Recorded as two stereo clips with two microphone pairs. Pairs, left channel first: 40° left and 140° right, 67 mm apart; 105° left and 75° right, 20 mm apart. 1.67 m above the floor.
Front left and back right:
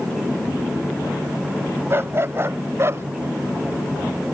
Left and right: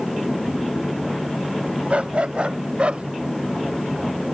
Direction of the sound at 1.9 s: 90° right.